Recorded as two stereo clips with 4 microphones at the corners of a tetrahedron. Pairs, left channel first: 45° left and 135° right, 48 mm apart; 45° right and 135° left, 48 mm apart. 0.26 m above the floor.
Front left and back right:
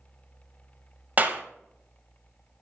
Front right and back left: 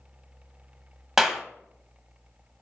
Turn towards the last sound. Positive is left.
turn(degrees=-150)